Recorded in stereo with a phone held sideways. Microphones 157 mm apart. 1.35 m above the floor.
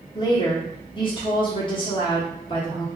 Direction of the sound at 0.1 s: 35° left (ahead or behind).